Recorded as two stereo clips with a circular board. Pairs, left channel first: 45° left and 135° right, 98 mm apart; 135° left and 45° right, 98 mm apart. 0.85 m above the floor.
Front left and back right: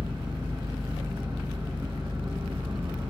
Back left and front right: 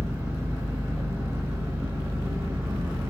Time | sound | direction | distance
0.0 | an engine running | 105° right | 1.1 m